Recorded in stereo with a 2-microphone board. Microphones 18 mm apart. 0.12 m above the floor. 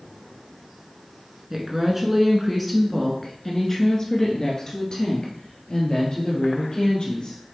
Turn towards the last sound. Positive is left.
turn(degrees=45)  # may be behind; listen again after turning